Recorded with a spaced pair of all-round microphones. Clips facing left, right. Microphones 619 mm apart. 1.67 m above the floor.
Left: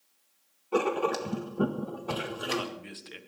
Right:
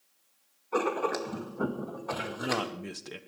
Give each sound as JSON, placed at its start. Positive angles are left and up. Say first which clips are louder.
{"t": 0.7, "sound": "writing", "louder": "left 2 dB", "side_deg": 55, "distance_m": 2.0}
{"t": 2.2, "sound": "a man speaking", "louder": "right 3 dB", "side_deg": -65, "distance_m": 1.5}